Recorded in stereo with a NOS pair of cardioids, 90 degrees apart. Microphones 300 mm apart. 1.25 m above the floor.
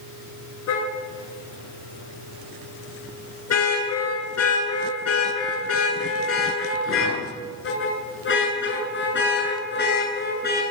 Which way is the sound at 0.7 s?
60° left.